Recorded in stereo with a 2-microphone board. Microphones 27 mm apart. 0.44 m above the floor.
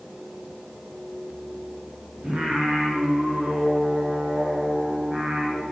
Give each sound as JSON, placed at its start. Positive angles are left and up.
{"t": 2.2, "sound": "singing", "side_deg": -50, "distance_m": 3.5}